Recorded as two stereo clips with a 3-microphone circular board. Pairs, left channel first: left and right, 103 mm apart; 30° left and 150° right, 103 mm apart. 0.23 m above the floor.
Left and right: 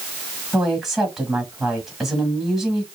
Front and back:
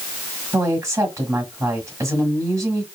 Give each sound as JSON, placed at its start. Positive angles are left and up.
{"t": 0.5, "sound": "a woman speaking", "azimuth_deg": -175, "distance_m": 1.3}